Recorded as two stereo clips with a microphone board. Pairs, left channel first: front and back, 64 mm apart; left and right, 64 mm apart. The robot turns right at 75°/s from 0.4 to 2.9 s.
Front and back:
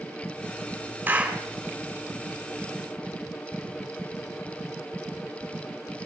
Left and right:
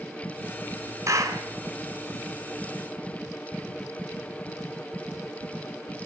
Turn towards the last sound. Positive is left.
turn(degrees=20)